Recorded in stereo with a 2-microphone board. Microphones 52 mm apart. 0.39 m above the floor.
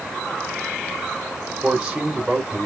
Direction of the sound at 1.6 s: 15° right (ahead or behind).